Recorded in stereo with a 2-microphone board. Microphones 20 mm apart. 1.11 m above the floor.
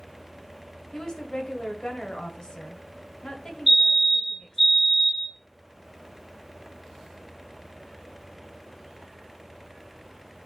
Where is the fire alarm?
15° right (ahead or behind), 1.3 m.